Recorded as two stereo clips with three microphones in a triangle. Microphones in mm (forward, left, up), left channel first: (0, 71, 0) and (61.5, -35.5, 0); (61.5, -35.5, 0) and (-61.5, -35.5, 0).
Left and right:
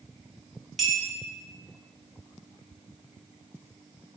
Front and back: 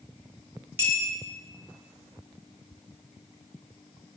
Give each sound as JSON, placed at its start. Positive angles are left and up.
{"t": 0.8, "sound": "a clink", "azimuth_deg": -145, "distance_m": 0.7}